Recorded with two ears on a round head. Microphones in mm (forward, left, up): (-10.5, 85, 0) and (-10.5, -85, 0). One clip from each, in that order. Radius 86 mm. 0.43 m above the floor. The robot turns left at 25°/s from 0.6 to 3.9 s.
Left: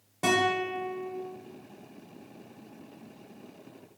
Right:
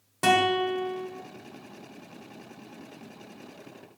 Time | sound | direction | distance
0.2 | a guitar | 35° right (ahead or behind) | 1.3 m